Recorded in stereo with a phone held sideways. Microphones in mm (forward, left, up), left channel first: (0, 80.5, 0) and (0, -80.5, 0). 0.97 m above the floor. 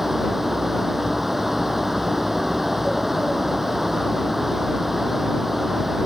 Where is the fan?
Centre (ahead or behind).